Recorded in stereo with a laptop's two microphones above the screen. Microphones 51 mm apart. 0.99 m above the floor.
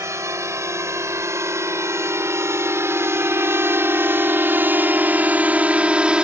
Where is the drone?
80° right; by 6.2 s 20° right (ahead or behind).